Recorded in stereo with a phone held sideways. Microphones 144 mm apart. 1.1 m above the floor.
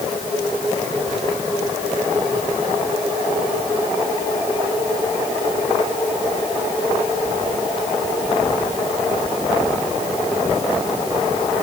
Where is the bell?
No bell in this recording.